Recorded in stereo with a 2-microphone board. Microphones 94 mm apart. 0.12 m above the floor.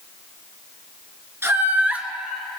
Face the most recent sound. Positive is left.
turn(degrees=5)  # may be behind; listen again after turning